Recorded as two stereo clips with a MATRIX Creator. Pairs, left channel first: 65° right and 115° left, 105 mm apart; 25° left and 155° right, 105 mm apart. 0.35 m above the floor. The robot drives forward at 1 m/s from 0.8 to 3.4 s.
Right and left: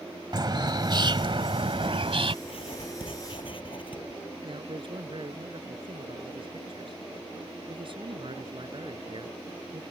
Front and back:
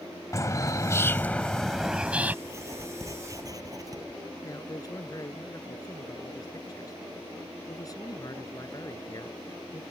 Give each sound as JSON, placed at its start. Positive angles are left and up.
{"t": 0.3, "sound": "a bird", "azimuth_deg": 75}
{"t": 2.5, "sound": "writing", "azimuth_deg": -95}
{"t": 4.4, "sound": "a man speaking", "azimuth_deg": 75}